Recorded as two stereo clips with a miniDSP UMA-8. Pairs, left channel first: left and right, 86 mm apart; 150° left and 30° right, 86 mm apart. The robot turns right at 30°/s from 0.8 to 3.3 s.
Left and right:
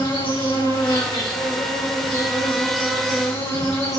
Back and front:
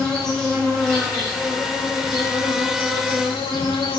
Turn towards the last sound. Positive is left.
turn(degrees=140)